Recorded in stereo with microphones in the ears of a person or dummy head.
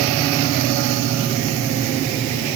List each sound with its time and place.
Only background noise.